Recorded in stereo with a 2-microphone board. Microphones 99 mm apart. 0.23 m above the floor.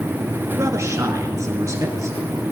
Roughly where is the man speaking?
Right.